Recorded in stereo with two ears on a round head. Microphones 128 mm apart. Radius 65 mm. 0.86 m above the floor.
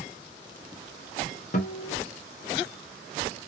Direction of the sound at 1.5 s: 55° left (ahead or behind).